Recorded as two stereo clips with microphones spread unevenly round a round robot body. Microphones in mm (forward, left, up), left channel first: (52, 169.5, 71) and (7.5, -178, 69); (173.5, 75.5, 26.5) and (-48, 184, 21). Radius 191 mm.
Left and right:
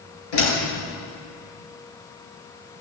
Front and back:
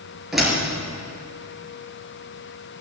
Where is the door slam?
65° left, 7.5 m.